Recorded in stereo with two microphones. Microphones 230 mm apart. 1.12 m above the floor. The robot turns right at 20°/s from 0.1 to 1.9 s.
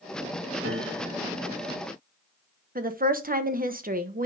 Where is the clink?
No clink in this recording.